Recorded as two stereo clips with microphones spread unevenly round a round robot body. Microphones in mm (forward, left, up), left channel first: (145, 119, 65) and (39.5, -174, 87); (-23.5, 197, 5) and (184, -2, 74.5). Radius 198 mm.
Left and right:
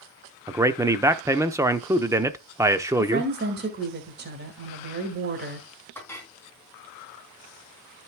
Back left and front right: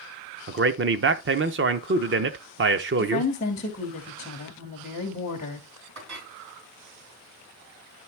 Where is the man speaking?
30° right, 0.9 m.